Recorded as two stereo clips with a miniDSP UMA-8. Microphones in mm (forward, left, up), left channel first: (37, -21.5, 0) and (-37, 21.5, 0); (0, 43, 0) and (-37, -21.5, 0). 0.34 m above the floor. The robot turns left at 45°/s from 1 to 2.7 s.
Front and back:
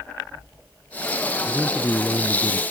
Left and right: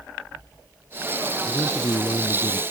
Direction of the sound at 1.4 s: 60° left.